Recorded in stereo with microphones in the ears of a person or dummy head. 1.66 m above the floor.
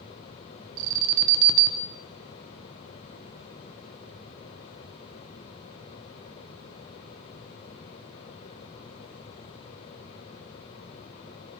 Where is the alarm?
65° right (ahead or behind), 1.3 m.